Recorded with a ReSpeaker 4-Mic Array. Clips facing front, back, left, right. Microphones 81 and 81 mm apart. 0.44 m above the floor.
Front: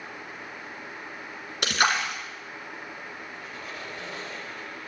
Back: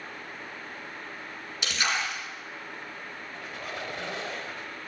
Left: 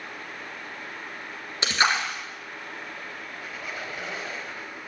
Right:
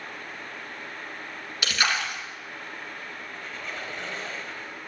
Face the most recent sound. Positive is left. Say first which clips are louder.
# back 1 dB, left 1 dB
turn(degrees=170)